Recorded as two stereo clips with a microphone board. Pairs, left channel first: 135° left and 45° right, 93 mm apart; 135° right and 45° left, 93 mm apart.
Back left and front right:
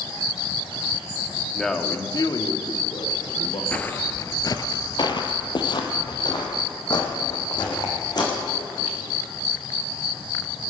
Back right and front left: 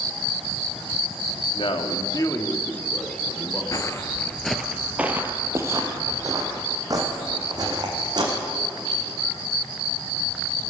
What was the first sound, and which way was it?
A man speaking, 135° right.